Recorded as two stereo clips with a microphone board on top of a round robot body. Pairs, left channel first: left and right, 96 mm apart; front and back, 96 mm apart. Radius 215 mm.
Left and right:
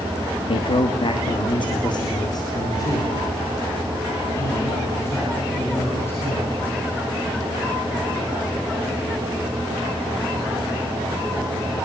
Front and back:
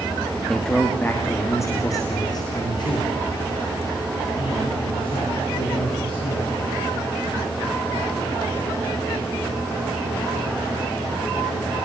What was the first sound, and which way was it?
A man speaking, 85° left.